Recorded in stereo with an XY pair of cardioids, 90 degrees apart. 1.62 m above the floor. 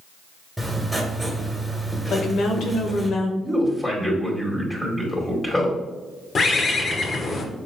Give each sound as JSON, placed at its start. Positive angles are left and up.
{"t": 0.6, "sound": "writing", "azimuth_deg": -10, "distance_m": 1.4}
{"t": 2.1, "sound": "a woman speaking", "azimuth_deg": 65, "distance_m": 1.0}
{"t": 3.4, "sound": "a man speaking", "azimuth_deg": 20, "distance_m": 2.0}
{"t": 6.3, "sound": "a bird", "azimuth_deg": 50, "distance_m": 0.9}